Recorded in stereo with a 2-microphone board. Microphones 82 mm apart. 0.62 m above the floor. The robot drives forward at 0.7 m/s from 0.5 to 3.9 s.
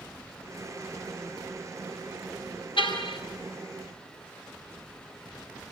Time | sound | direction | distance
2.8 | a car horn | 85° left | 4.5 m